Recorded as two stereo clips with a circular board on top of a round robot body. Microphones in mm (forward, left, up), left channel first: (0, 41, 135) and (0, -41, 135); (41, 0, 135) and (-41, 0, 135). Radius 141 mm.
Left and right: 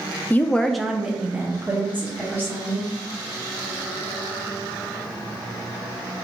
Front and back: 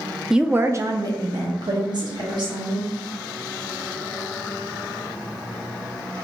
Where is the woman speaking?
105° left, 0.6 m; by 2.9 s 155° right, 1.9 m.